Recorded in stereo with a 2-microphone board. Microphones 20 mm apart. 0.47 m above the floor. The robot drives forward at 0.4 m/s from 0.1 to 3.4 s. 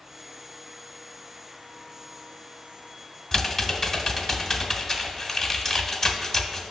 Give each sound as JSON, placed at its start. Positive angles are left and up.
{"t": 3.3, "sound": "typing on a keyboard", "side_deg": 20, "distance_m": 0.9}